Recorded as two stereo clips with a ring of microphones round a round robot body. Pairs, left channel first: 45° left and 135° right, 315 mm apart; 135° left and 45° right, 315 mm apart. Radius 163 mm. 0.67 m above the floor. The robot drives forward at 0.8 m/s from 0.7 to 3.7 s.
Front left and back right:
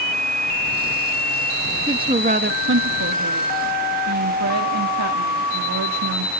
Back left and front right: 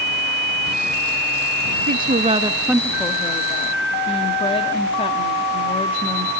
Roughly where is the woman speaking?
Ahead right.